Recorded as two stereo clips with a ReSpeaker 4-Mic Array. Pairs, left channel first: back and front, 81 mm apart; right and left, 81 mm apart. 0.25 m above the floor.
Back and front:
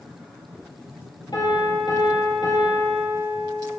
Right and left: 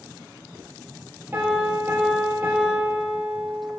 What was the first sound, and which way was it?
A piano, 155° left.